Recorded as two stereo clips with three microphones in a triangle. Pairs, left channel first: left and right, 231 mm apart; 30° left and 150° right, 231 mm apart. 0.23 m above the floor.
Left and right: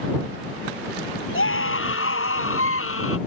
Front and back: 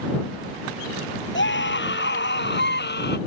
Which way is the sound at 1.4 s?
65° left.